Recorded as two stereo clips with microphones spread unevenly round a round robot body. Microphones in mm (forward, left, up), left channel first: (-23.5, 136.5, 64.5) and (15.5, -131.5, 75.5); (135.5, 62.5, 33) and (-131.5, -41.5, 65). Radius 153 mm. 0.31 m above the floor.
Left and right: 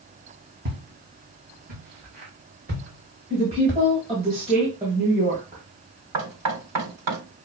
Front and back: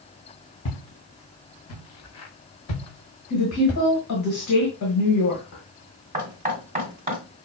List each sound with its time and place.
0.7 s footsteps: 25° right, 1.7 m
3.3 s a woman speaking: 10° right, 2 m
6.1 s knocking: 95° right, 1.9 m